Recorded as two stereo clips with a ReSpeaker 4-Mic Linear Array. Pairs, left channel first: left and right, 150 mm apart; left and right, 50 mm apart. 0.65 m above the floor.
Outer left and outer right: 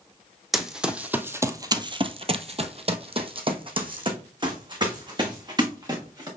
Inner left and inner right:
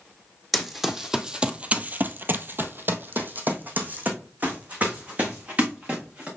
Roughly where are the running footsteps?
Centre.